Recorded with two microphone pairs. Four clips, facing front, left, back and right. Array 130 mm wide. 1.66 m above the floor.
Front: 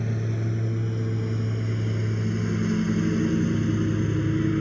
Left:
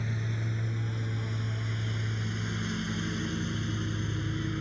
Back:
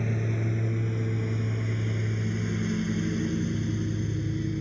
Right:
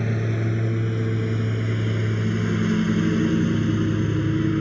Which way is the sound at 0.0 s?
100° right.